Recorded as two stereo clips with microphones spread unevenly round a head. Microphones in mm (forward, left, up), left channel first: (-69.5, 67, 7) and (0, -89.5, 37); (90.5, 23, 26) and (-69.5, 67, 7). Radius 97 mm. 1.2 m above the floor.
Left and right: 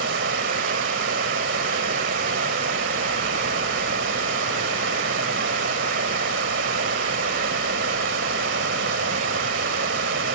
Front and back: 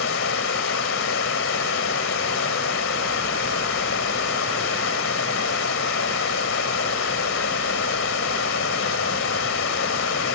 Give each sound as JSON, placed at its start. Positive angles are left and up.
{"t": 0.0, "sound": "running water", "azimuth_deg": -35}